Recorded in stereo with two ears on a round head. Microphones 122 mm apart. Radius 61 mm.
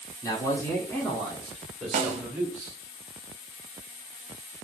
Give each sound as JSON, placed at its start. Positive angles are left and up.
{"t": 0.2, "sound": "a man speaking", "side_deg": 25, "distance_m": 1.2}
{"t": 1.9, "sound": "a snare drum", "side_deg": -55, "distance_m": 0.7}